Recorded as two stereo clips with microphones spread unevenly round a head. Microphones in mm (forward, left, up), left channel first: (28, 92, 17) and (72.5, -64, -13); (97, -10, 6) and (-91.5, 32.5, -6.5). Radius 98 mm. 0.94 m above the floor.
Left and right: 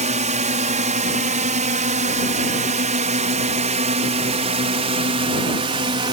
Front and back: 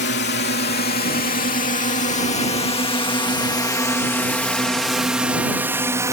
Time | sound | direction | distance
0.0 | a drone | 40° right | ?